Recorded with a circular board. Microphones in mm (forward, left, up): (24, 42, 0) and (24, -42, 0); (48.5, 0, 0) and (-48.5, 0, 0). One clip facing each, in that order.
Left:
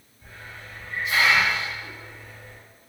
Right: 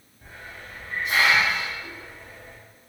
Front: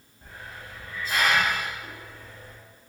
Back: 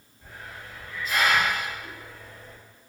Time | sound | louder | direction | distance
0.2 | a hiss | right 1 dB, even | 55° right | 1.3 m